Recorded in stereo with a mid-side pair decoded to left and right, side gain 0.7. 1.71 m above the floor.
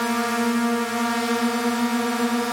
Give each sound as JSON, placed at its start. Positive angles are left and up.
{"t": 0.0, "sound": "a drone", "azimuth_deg": 0}